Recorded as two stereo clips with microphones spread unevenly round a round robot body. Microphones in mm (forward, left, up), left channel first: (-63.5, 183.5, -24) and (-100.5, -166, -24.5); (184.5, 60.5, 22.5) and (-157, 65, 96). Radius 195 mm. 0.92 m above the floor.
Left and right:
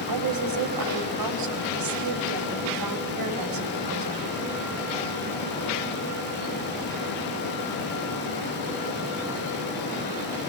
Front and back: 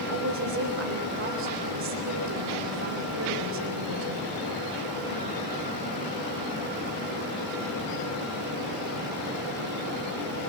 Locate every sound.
0.1 s a woman speaking: 120° right, 4 m